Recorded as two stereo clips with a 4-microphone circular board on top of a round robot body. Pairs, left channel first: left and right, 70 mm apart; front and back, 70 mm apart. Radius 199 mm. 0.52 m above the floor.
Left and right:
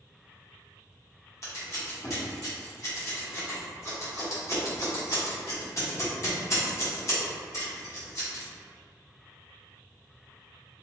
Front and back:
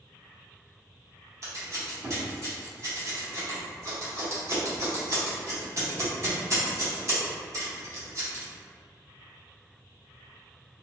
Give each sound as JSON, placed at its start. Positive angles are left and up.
{"t": 1.4, "sound": "scissors", "azimuth_deg": 135, "distance_m": 1.9}